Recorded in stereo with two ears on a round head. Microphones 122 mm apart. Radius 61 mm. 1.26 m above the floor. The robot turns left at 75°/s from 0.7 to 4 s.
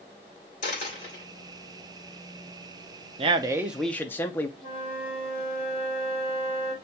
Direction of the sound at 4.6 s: 40° left (ahead or behind).